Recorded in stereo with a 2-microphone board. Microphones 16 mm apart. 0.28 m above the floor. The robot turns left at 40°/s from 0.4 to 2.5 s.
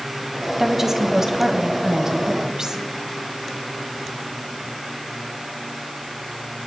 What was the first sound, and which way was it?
A woman speaking, 25° right.